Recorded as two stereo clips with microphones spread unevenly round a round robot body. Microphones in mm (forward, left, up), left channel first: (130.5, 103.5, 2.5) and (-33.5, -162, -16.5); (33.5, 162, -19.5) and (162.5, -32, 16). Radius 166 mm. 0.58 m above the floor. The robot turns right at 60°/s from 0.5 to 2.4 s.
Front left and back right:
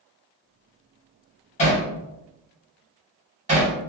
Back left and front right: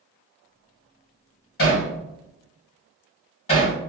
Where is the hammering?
130° left, 1.2 m; by 3.8 s 175° left, 1.2 m.